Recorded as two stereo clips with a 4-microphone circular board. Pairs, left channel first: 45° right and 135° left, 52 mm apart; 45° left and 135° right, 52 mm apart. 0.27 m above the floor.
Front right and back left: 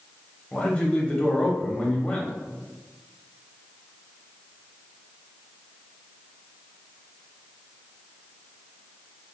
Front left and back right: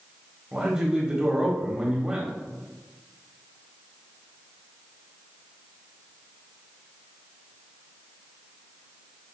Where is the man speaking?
85° right, 1.0 m.